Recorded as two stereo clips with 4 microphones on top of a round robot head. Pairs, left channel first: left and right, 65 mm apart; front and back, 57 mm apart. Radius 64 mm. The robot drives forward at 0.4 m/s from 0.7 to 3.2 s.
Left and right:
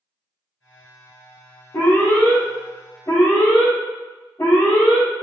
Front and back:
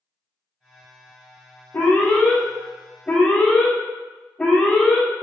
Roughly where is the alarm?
Ahead left.